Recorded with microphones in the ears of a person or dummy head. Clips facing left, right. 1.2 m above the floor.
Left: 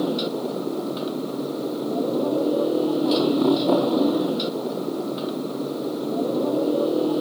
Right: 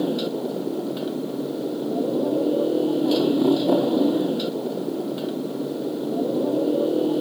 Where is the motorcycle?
5° right (ahead or behind).